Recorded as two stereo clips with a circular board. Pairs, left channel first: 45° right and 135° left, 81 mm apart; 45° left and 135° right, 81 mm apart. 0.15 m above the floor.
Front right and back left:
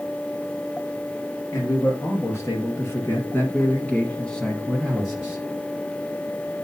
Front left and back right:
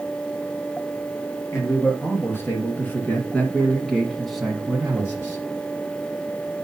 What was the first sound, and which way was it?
A man speaking, 5° right.